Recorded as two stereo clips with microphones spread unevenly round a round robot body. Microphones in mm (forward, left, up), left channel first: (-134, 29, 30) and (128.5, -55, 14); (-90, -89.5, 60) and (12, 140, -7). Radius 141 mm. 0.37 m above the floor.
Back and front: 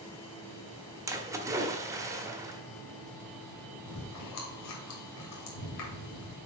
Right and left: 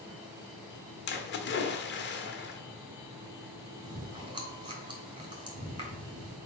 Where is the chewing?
130° left, 3 m.